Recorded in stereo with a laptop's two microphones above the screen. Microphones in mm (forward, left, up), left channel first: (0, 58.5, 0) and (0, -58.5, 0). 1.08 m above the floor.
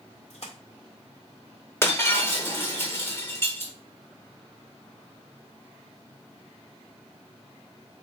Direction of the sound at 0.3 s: 65° left (ahead or behind).